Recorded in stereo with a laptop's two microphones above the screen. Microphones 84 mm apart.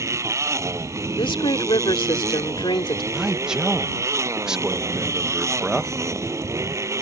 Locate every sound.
0.0 s a motorcycle: 35° right (ahead or behind)
1.2 s a woman speaking: 85° left
3.1 s a man speaking: 5° right (ahead or behind)